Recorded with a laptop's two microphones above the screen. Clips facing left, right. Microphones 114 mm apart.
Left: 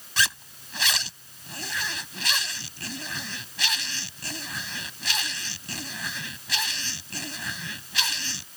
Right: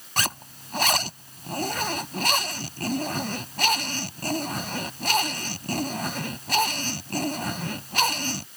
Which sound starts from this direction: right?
A zipper, at 0.2 s.